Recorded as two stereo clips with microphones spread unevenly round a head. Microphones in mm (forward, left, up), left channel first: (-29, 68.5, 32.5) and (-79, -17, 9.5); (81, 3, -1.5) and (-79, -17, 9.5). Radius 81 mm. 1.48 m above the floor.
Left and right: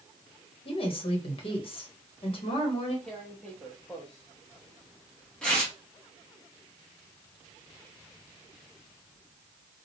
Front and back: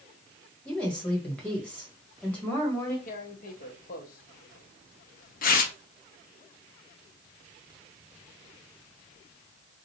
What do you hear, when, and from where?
0.7 s a woman speaking: 90° left, 1.6 m
3.1 s tearing paper: 30° right, 0.8 m